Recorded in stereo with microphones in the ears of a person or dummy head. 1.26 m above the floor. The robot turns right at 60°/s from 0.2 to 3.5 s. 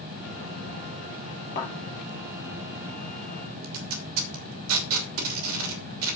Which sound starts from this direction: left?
A thud, at 1.6 s.